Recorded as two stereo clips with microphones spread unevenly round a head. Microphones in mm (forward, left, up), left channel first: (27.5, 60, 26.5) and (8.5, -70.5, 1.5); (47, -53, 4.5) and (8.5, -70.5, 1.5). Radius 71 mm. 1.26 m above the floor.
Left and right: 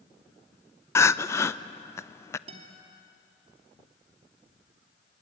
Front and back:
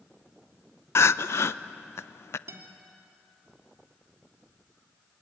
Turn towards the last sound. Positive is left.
turn(degrees=-150)